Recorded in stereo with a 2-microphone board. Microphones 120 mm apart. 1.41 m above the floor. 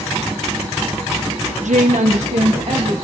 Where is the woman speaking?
85° right, 0.8 m; by 2.9 s 65° right (ahead or behind), 2 m.